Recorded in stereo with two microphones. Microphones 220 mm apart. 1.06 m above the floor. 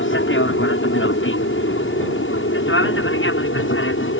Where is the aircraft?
65° left (ahead or behind).